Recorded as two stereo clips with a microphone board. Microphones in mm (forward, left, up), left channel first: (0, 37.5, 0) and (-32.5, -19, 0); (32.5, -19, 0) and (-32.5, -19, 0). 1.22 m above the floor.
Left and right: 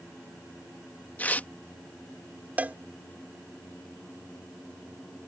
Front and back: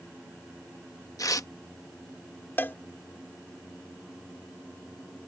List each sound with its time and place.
1.2 s tearing paper: straight ahead
2.6 s a cowbell: 60° right